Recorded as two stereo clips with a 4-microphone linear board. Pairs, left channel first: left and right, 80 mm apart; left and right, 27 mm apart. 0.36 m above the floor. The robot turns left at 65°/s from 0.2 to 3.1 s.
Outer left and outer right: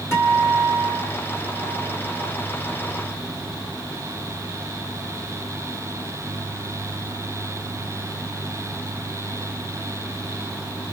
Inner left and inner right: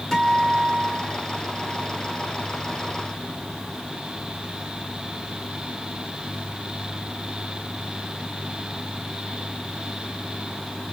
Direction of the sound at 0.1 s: 35° left.